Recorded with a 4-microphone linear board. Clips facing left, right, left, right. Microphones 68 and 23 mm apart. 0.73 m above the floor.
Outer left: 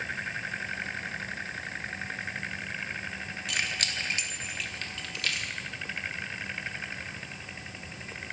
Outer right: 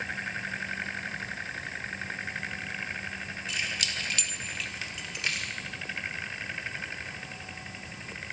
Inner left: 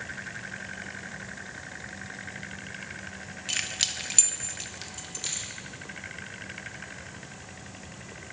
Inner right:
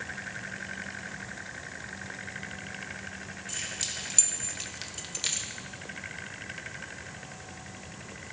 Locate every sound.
3.5 s keys jangling: 65° left (ahead or behind), 0.6 m; by 5.5 s 25° right (ahead or behind), 0.9 m